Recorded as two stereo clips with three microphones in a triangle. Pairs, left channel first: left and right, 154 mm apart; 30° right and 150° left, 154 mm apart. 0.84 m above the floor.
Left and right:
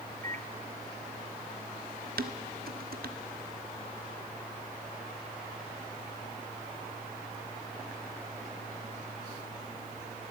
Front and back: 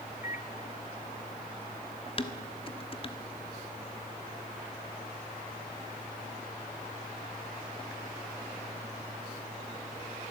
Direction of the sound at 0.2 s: 60° right.